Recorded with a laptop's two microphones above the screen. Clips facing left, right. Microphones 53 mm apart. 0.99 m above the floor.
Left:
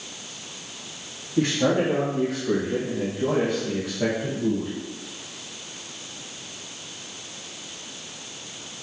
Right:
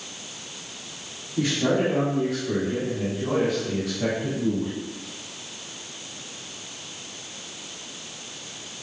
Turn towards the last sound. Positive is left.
turn(degrees=10)  # may be behind; listen again after turning